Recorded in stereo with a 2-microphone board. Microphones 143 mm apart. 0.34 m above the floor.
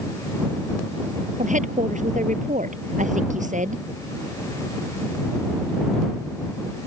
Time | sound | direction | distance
1.4 | a woman speaking | 60° right (ahead or behind) | ?